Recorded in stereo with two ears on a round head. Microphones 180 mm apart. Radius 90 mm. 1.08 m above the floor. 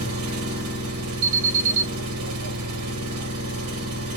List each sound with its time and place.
0.0 s an engine running: 85° right, 2.5 m
1.2 s an alarm: 65° right (ahead or behind), 2.5 m